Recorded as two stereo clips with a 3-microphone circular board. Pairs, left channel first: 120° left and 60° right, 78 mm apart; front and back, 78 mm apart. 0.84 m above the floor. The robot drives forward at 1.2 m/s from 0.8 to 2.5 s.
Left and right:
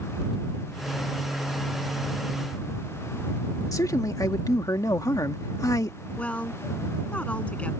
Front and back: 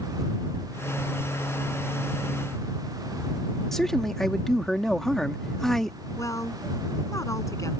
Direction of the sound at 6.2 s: 45° left.